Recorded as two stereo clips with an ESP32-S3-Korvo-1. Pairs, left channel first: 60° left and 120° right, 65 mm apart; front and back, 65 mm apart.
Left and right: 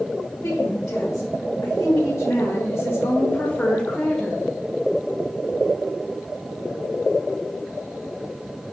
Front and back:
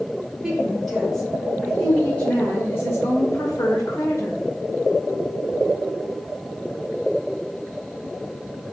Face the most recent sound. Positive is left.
turn(degrees=-25)